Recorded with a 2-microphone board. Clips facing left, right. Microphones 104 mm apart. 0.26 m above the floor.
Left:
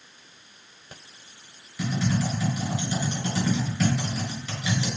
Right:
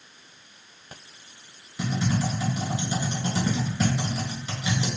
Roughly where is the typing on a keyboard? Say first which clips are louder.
Even; right.